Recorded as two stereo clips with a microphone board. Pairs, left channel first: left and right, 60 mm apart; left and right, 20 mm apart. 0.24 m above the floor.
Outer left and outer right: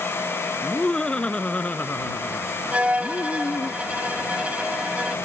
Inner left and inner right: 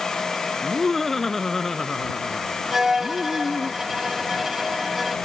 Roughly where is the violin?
Right.